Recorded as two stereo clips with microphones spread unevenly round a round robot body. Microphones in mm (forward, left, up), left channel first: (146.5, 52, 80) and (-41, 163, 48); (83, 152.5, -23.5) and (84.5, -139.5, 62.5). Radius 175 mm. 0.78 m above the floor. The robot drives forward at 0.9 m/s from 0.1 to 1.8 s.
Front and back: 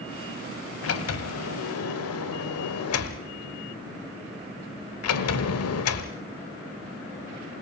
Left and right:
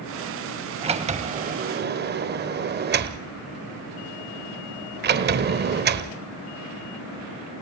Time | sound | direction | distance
0.8 | a sliding door | 20° right | 2 m